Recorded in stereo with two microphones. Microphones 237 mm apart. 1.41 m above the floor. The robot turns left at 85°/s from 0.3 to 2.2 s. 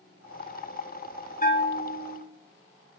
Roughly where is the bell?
Behind left.